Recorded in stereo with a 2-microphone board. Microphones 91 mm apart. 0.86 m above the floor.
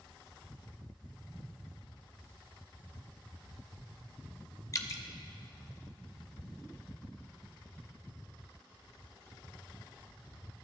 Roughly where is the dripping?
Left.